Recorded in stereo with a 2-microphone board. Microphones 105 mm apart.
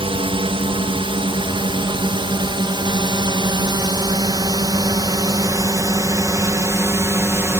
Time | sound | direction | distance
0.0 | a drone | 60° right (ahead or behind) | ?